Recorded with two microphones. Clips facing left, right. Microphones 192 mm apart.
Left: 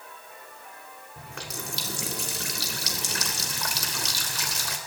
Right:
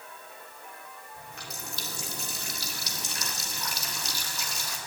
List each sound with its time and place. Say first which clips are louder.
1.2 s a running tap: left 7 dB; 80° left, 3 m